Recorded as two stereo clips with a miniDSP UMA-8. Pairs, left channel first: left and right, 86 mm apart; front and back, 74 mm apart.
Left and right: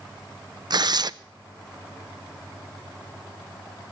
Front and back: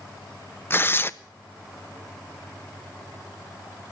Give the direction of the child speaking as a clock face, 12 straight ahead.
I don't hear a child speaking.